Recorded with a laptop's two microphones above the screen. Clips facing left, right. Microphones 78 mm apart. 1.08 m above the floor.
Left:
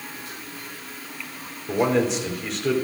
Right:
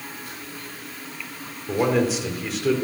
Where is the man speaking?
Centre (ahead or behind), 3.5 m.